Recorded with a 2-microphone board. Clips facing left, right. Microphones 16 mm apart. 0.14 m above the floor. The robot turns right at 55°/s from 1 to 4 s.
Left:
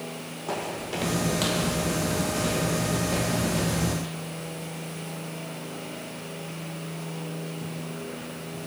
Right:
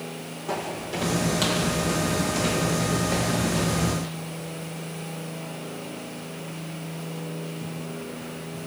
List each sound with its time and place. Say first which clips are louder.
0.5 s footsteps: right 1 dB; 15° left (ahead or behind), 4 m; by 4.1 s 50° right (ahead or behind), 7.5 m